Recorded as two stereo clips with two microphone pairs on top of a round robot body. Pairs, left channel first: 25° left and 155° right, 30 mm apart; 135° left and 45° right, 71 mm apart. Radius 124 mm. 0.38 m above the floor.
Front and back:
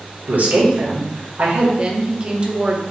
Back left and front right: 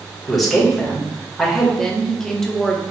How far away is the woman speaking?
About 0.8 m.